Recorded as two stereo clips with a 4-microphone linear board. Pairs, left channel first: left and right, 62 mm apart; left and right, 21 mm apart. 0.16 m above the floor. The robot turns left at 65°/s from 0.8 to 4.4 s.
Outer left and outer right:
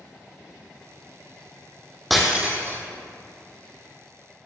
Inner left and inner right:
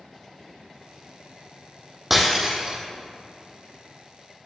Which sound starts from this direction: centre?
Breaking glass, at 2.1 s.